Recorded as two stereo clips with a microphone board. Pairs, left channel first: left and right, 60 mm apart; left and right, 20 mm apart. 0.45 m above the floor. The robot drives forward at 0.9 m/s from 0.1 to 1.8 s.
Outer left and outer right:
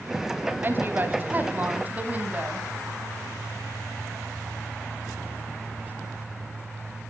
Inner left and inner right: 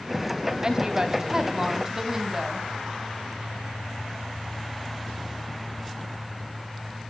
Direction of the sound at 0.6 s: 35° right (ahead or behind).